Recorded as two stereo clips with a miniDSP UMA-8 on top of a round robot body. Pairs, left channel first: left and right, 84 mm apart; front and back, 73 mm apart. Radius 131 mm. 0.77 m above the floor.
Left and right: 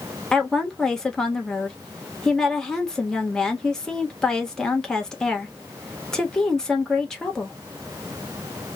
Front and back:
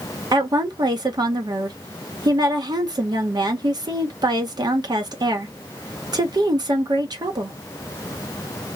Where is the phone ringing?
No phone ringing in this recording.